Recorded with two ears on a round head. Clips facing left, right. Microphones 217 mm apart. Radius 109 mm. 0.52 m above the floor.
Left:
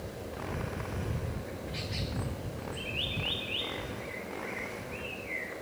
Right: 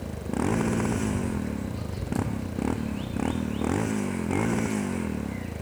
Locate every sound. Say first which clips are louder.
0.0 s a motorcycle: right 11 dB; 70° right (ahead or behind)